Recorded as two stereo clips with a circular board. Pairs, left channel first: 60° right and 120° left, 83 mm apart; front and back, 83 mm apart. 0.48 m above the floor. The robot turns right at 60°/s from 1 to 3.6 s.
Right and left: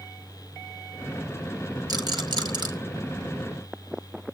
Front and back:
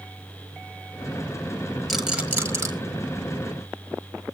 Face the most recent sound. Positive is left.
turn(degrees=-170)